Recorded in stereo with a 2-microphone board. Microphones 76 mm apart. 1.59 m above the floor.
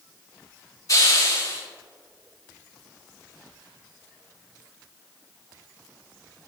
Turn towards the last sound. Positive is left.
turn(degrees=50)  # may be behind; listen again after turning